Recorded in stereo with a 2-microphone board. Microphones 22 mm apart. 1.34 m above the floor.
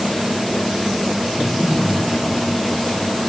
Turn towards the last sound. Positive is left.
turn(degrees=65)  # may be behind; listen again after turning